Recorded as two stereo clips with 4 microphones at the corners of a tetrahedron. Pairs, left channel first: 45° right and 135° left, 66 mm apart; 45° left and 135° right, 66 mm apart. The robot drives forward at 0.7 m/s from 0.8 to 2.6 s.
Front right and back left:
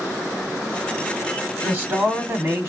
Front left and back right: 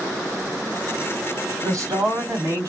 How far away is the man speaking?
About 1.8 m.